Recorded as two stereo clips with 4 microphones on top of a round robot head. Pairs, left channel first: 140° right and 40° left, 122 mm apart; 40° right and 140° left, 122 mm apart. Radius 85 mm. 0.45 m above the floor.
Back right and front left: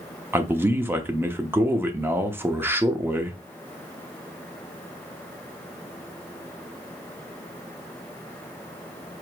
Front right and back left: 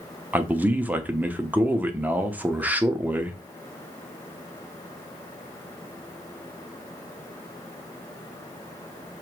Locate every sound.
0.3 s a man speaking: 85° left, 0.7 m